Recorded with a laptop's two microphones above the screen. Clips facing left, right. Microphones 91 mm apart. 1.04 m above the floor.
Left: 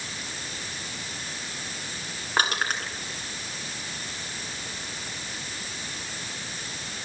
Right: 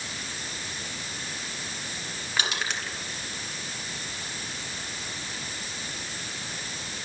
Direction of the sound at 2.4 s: 45° left (ahead or behind).